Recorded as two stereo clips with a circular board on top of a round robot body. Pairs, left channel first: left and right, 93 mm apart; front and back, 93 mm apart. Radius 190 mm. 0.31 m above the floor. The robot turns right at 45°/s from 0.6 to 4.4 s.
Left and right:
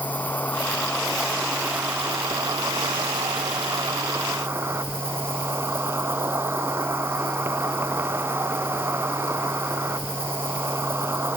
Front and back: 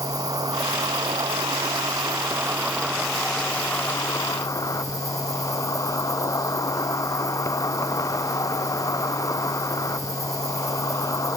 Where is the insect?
155° left, 0.8 m; by 11.4 s 35° right, 0.8 m.